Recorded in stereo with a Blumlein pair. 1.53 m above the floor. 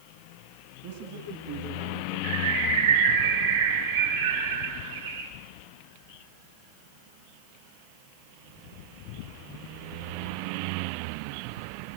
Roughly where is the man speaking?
Ahead right.